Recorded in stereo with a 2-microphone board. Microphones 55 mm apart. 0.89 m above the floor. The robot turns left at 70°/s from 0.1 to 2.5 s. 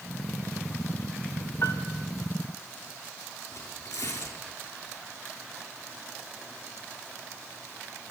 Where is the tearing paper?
85° left, 5 m.